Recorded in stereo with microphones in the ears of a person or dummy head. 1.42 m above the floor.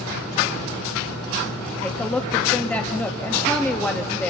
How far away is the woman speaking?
About 2.0 m.